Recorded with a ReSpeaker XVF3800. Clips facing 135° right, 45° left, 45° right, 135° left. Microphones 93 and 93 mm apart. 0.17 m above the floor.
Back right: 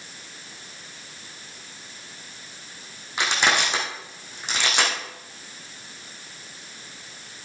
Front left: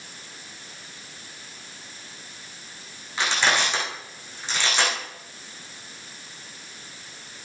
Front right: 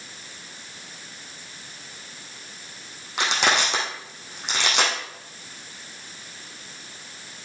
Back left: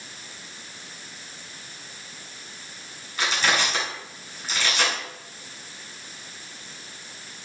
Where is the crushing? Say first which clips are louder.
Even, front right 2 dB; 60° right, 5 m.